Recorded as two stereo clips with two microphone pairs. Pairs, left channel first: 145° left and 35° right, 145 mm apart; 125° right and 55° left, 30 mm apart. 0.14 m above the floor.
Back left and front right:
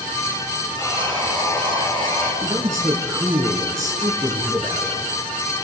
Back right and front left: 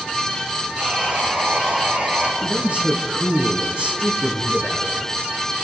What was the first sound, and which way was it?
Sawing, 90° left.